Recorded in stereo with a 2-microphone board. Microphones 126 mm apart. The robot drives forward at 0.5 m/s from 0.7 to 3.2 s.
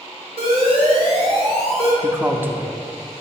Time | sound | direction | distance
0.4 | an alarm | 45° right (ahead or behind) | 1.7 m
2.0 | a man speaking | 20° right (ahead or behind) | 0.5 m